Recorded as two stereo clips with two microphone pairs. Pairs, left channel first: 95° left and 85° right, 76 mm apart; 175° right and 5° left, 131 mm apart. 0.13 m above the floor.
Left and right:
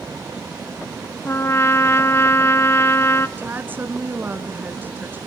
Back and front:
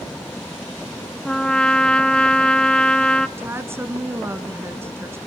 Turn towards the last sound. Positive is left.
turn(degrees=-50)